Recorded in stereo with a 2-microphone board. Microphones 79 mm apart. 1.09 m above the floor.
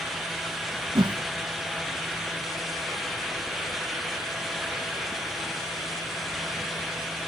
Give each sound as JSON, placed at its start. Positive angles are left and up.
{"t": 0.9, "sound": "a whoosh", "side_deg": -75, "distance_m": 0.6}